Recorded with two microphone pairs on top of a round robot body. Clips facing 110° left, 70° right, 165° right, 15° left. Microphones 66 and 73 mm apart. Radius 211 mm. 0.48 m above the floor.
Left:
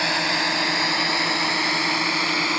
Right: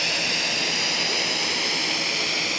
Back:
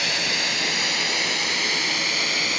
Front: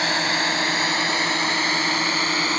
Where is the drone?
65° left.